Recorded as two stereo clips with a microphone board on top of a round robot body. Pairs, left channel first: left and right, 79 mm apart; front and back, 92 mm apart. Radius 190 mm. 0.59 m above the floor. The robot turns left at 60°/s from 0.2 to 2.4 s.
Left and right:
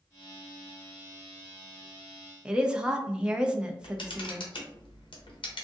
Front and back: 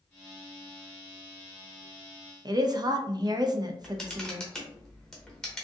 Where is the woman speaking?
165° right, 0.7 m.